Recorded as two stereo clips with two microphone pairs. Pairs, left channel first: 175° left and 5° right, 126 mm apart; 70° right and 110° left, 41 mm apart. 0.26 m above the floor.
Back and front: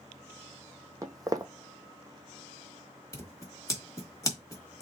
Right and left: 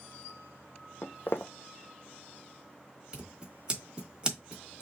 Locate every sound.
1.0 s footsteps: 70° right, 0.6 m
3.1 s scissors: 150° left, 1.3 m